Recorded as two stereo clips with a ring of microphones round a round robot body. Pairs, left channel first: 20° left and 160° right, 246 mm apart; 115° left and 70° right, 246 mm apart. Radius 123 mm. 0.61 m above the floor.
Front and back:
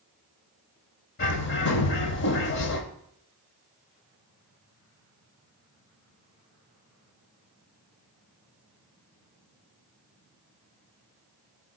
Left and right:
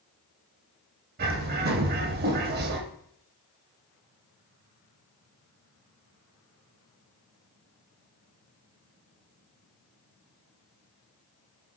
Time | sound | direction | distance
1.2 | a bird | 20° right | 0.6 m